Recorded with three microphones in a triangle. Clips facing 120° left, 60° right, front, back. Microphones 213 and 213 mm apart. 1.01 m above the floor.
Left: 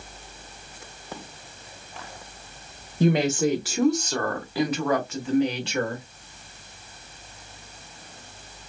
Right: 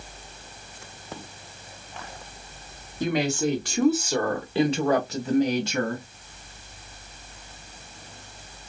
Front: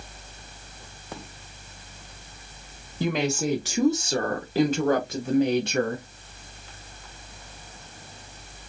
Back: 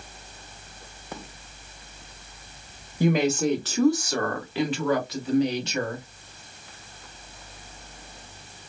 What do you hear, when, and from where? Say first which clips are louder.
3.0 s a woman speaking: left 3 dB, back 4 dB; 110° left, 0.9 m; by 6.0 s 25° right, 1.7 m